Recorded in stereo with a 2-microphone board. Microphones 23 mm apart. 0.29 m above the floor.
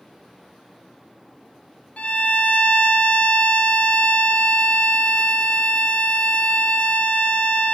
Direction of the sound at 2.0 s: 65° left (ahead or behind).